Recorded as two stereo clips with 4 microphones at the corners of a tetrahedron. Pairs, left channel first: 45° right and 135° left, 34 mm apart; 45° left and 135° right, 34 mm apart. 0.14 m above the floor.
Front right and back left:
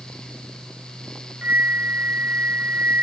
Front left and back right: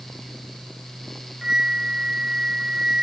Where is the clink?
I don't hear a clink.